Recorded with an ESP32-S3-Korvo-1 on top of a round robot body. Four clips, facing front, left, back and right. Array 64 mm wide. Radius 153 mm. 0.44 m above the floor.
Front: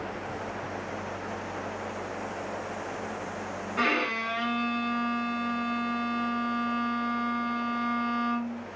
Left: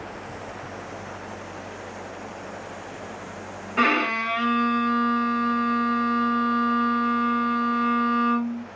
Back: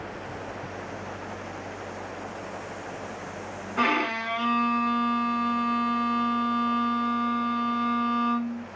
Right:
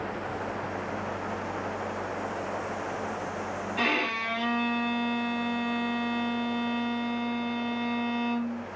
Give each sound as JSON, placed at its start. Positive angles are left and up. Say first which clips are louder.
{"t": 3.8, "sound": "a violin", "louder": "left 8 dB, back 3 dB", "azimuth_deg": 100, "distance_m": 2.0}